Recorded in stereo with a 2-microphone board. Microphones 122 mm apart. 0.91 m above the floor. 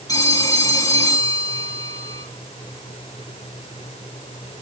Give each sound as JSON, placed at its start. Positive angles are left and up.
{"t": 0.1, "sound": "a phone ringing", "side_deg": 30, "distance_m": 5.5}